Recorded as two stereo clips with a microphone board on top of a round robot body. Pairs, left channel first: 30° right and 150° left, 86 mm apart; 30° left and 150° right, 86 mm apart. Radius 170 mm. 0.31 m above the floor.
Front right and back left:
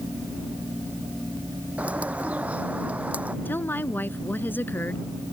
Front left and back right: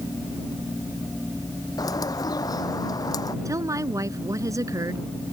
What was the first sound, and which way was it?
A bird, 75° left.